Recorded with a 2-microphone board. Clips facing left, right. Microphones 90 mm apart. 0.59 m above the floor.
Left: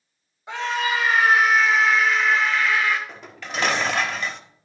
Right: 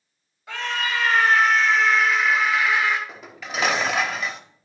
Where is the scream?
20° left (ahead or behind), 3 m; by 3.0 s 25° right (ahead or behind), 1.8 m.